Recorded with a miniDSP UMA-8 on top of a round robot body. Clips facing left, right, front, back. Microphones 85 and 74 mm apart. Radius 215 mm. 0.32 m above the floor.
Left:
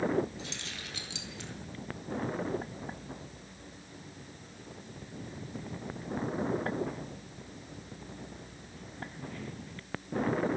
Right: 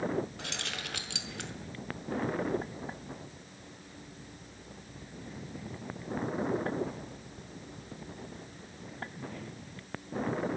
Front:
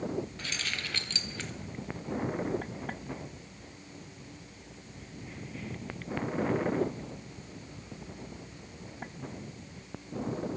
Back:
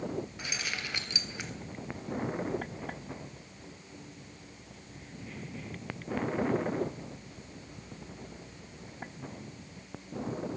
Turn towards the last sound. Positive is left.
turn(degrees=-105)